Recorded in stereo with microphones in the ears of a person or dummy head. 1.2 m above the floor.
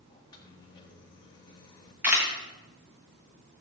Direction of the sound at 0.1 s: 20° left (ahead or behind).